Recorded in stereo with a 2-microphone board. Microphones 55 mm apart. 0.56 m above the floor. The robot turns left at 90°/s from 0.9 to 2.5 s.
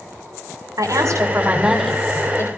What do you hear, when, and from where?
0.8 s a woman speaking: 100° right, 5.5 m; by 2.5 s 120° left, 5.5 m